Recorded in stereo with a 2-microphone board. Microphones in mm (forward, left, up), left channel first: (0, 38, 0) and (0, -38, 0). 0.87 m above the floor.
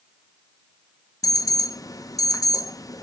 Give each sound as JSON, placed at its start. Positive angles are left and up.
{"t": 1.2, "sound": "an alarm", "side_deg": 50, "distance_m": 0.5}